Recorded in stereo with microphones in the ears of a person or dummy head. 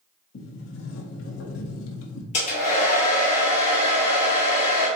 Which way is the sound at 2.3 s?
45° left (ahead or behind).